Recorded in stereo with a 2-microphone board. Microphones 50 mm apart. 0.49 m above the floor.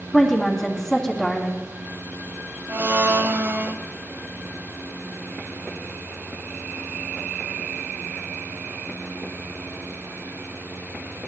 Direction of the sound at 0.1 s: 5° left (ahead or behind).